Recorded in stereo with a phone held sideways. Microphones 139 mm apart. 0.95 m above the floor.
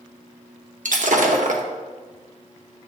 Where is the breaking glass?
65° right (ahead or behind), 0.8 m.